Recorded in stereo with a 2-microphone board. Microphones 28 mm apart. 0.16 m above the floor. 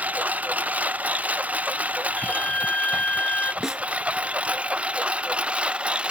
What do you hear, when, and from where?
0.0 s a lawn mower: 85° right; by 6.1 s 50° right (ahead or behind)
2.2 s a flute: 65° left (ahead or behind)
3.6 s a snare drum: 20° right (ahead or behind)